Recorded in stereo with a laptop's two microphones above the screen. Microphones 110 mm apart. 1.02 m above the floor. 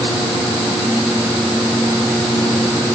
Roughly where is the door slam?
No door slam in this recording.